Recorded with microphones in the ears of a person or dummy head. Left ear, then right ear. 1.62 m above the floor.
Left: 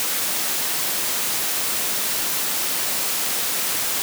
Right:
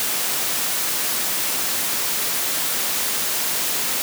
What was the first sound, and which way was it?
Only background noise.